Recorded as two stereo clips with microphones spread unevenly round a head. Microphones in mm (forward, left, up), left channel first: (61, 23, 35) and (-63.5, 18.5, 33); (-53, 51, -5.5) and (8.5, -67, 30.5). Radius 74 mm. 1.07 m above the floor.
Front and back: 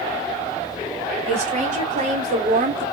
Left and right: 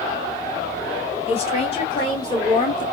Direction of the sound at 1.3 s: 155° left.